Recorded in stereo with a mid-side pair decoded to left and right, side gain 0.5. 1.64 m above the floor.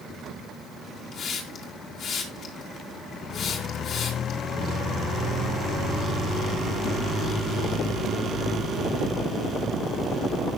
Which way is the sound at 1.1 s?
65° left.